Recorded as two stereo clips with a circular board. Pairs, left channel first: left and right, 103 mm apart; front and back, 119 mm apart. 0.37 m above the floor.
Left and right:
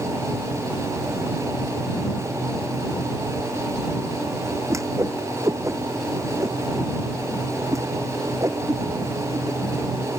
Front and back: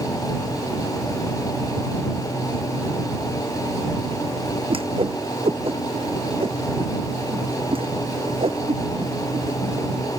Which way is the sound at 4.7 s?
145° right.